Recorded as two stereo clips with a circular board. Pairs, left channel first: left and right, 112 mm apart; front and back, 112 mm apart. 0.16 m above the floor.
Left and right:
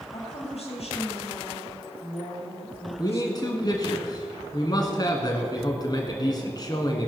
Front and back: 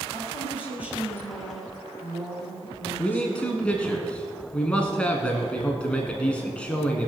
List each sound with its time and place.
0.1 s a woman speaking: 110° left, 4 m
3.0 s a man speaking: 75° left, 1.4 m